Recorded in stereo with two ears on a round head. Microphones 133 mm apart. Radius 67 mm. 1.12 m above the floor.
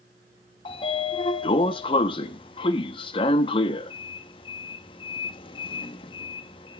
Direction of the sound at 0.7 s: 35° left (ahead or behind).